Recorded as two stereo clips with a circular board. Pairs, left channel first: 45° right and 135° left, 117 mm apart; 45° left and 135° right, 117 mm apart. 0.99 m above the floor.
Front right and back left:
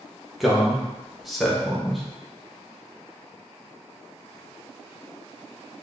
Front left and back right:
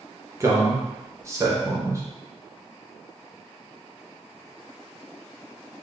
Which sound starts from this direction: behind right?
A man speaking, at 0.4 s.